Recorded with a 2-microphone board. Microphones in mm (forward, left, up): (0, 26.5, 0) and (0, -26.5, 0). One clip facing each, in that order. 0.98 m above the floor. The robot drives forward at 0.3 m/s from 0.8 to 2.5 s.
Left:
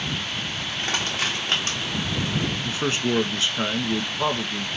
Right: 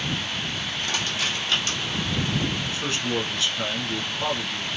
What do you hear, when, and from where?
0.8 s crushing: 40° left (ahead or behind), 1.6 m; by 1.8 s 35° left (ahead or behind), 1.9 m
2.6 s a man speaking: 35° left (ahead or behind), 1.1 m